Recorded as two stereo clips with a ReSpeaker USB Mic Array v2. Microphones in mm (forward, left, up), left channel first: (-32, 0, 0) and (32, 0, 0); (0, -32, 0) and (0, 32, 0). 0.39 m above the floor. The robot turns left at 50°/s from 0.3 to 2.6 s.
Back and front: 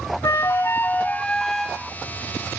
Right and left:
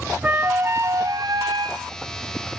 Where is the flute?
155° left, 1.3 m; by 1.8 s 75° left, 1.3 m.